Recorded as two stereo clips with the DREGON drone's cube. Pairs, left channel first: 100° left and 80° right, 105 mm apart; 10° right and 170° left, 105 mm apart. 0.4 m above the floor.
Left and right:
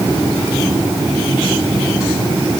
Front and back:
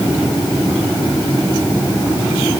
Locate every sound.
Only background noise.